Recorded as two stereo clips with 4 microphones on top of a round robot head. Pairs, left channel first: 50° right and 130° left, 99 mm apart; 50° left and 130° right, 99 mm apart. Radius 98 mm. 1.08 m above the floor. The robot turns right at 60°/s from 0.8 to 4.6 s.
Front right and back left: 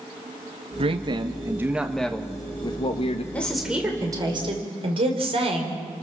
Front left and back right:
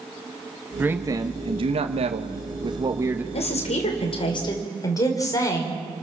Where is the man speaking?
155° left, 1.5 m; by 3.2 s 60° right, 1.5 m.